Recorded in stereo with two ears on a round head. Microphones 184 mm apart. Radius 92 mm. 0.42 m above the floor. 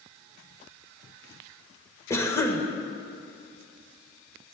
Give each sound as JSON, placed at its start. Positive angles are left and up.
{"t": 2.1, "sound": "a cough", "side_deg": 15, "distance_m": 1.2}